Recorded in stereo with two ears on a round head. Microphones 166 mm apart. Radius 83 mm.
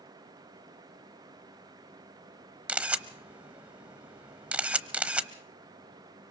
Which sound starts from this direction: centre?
A camera shutter, at 2.7 s.